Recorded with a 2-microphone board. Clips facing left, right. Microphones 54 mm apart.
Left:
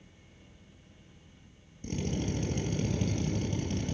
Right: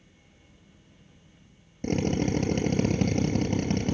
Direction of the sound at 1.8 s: 50° right (ahead or behind).